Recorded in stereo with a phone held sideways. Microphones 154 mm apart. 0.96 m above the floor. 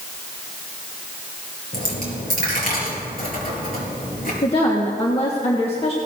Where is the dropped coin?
70° left (ahead or behind), 4.5 m.